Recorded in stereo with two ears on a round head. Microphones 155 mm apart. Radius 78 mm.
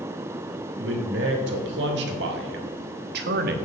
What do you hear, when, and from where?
0.8 s a man speaking: 80° right, 3 m; by 3.6 s 60° right (ahead or behind), 1.2 m